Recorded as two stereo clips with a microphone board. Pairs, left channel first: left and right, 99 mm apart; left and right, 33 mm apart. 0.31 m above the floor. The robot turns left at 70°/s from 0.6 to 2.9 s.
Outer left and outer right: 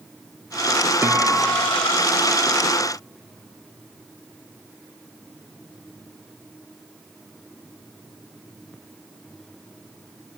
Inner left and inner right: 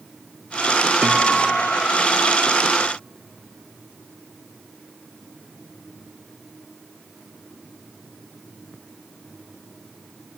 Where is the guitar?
150° right, 0.8 m; by 1.9 s 150° left, 0.8 m.